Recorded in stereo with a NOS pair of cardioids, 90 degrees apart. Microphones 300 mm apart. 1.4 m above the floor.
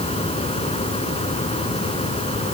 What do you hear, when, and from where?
0.0 s a fan: 20° left